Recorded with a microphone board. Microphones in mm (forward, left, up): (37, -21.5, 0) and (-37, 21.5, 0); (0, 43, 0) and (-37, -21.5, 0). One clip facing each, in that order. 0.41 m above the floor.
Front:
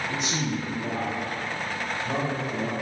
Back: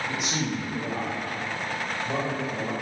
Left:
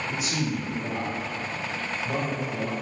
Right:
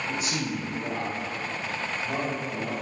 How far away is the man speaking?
About 1.8 m.